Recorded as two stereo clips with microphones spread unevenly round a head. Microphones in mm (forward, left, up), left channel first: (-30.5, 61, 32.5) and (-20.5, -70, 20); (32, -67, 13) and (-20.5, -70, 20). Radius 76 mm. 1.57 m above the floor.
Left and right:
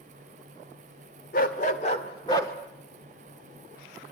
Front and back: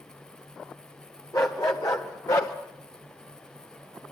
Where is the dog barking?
65° left, 2 m; by 2.5 s 30° left, 1.7 m.